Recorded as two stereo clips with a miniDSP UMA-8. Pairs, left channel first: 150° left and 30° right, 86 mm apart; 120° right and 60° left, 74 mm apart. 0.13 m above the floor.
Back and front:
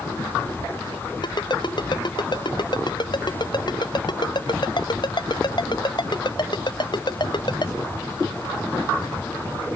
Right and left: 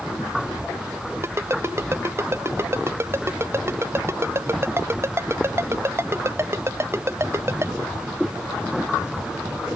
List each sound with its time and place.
1.2 s a ringtone: 115° left